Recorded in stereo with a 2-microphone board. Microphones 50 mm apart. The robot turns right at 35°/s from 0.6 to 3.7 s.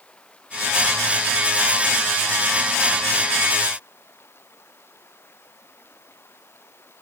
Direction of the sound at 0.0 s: 20° left.